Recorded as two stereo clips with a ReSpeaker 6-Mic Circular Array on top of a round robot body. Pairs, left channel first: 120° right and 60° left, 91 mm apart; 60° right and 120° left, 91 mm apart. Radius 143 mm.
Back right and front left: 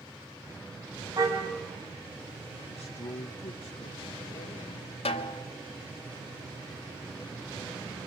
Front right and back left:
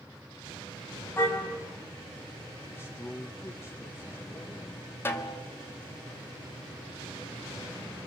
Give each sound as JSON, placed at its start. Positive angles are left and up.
{"t": 1.2, "sound": "a car horn", "azimuth_deg": 5, "distance_m": 5.0}
{"t": 2.7, "sound": "a man speaking", "azimuth_deg": -125, "distance_m": 1.3}
{"t": 5.0, "sound": "a snare drum", "azimuth_deg": -125, "distance_m": 1.6}